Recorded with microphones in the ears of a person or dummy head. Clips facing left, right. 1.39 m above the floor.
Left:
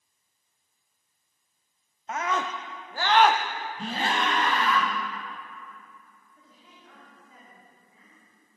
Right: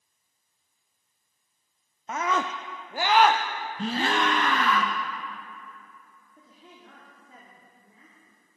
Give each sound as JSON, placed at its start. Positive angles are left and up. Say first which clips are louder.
{"t": 2.1, "sound": "a scream", "louder": "right 1 dB", "side_deg": -80, "distance_m": 0.6}
{"t": 3.8, "sound": "a gasp", "louder": "right 3 dB", "side_deg": -65, "distance_m": 0.6}
{"t": 6.4, "sound": "a woman speaking", "louder": "right 6 dB", "side_deg": -55, "distance_m": 2.5}